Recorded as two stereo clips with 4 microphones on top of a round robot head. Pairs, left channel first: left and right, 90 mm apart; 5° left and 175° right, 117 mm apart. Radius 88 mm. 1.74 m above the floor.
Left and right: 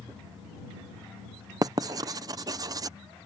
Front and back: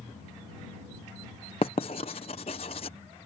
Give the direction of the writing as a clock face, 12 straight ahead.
2 o'clock.